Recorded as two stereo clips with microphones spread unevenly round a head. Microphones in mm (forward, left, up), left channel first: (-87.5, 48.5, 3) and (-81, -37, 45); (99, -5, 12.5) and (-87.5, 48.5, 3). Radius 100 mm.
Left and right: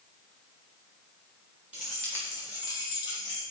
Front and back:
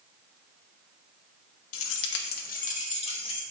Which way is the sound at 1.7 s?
Straight ahead.